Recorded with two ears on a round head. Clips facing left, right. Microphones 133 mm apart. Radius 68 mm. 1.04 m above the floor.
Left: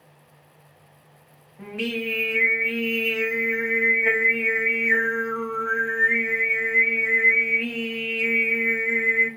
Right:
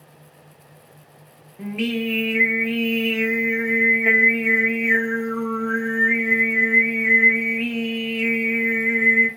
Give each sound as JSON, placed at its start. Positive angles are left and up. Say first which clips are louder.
{"t": 1.6, "sound": "singing", "louder": "right 5 dB", "side_deg": -20, "distance_m": 0.6}